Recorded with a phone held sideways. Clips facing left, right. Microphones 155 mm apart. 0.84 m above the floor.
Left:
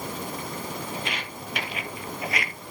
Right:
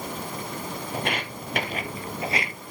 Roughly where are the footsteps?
Right.